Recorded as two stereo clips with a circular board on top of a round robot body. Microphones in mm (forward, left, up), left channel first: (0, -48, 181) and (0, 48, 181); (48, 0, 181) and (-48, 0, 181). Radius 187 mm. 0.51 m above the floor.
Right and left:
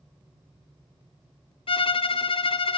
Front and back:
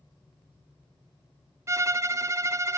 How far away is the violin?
About 0.6 m.